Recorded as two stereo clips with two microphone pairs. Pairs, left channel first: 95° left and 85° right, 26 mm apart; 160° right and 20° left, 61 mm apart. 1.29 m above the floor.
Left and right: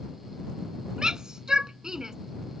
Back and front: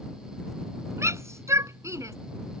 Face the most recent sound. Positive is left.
turn(degrees=-15)